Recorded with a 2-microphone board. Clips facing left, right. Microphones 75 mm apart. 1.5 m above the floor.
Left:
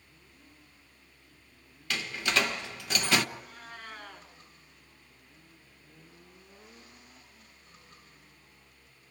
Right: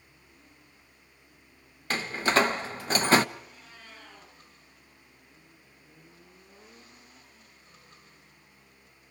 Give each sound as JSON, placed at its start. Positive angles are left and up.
{"t": 1.9, "sound": "a door slam", "side_deg": -35, "distance_m": 1.0}
{"t": 3.4, "sound": "a cat meowing", "side_deg": 60, "distance_m": 6.0}